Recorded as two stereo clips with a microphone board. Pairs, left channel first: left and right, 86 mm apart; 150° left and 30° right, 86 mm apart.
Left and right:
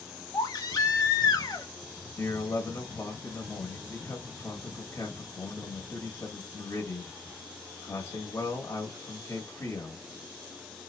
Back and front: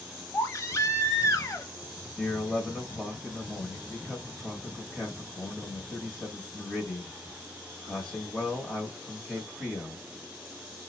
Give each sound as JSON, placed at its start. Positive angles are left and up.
{"t": 0.3, "sound": "a baby crying", "azimuth_deg": 105, "distance_m": 0.7}
{"t": 2.2, "sound": "a man speaking", "azimuth_deg": 65, "distance_m": 1.0}